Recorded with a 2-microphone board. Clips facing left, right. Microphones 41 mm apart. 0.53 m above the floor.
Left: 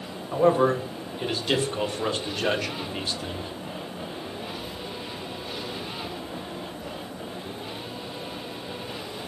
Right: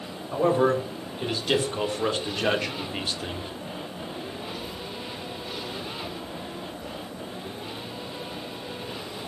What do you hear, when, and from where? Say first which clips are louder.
0.3 s a man speaking: left 1 dB; 10° left (ahead or behind), 2.5 m; by 3.5 s 30° right (ahead or behind), 1.1 m